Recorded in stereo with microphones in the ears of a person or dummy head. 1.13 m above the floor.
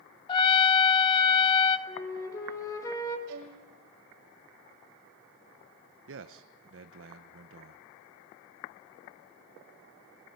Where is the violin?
75° right (ahead or behind), 3 m.